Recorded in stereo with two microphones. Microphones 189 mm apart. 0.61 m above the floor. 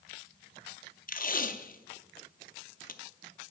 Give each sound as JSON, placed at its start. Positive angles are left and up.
{"t": 1.1, "sound": "tape being pulled", "side_deg": 45, "distance_m": 0.5}